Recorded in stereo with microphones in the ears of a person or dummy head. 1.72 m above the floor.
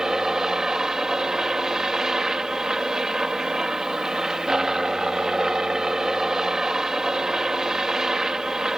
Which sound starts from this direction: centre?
A helicopter, at 0.0 s.